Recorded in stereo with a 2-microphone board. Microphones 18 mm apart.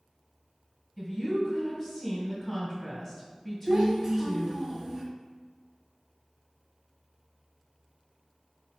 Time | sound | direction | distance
1.0 | a woman speaking | 15° left (ahead or behind) | 2.0 m
3.7 | a child speaking | 35° right (ahead or behind) | 0.9 m